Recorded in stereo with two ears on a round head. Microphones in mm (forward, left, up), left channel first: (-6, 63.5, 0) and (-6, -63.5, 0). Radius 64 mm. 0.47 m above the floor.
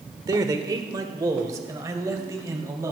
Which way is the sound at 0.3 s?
30° right (ahead or behind).